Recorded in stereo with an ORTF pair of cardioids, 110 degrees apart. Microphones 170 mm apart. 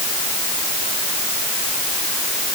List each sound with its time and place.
Only background noise.